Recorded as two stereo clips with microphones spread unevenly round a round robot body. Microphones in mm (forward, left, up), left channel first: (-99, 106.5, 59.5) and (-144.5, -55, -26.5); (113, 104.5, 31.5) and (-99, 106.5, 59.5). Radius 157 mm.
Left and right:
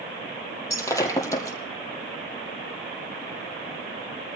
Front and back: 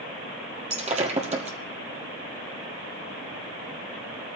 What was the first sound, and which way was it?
Breaking glass, 130° left.